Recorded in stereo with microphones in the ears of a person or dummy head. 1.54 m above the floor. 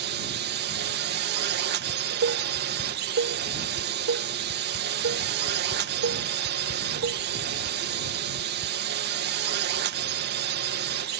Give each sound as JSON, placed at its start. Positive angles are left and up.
{"t": 0.0, "sound": "a drone", "side_deg": -55}
{"t": 1.9, "sound": "dishes clattering", "side_deg": -75}